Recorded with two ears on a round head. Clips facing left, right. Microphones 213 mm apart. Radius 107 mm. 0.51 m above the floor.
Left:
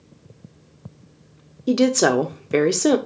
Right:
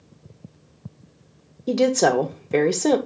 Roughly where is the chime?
No chime in this recording.